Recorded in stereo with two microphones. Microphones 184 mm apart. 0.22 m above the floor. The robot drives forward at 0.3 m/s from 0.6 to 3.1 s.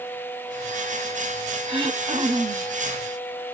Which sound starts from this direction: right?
Throat clearing, at 1.7 s.